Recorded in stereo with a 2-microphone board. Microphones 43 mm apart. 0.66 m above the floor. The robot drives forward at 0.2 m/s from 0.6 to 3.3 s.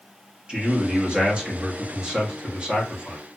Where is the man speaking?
25° right (ahead or behind), 1.0 m.